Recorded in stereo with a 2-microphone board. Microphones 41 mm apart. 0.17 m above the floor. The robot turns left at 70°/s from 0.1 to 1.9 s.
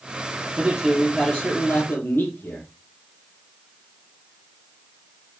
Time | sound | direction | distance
0.6 | a man speaking | 150° right | 4 m